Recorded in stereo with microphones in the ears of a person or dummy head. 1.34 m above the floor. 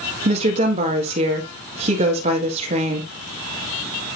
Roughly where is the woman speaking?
Right.